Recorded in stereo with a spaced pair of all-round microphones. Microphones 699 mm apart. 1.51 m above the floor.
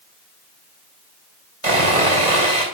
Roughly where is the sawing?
Right.